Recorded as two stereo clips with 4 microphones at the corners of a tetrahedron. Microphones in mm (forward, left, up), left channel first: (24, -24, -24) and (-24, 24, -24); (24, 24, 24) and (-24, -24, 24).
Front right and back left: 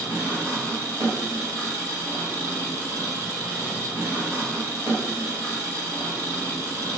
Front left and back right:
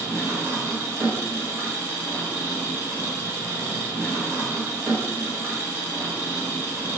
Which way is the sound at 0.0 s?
175° left.